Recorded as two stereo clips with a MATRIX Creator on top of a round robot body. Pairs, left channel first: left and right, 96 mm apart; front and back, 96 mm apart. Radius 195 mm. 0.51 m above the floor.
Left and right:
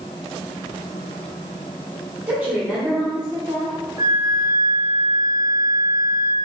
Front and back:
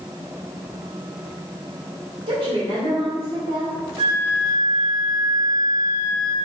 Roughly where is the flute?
Behind right.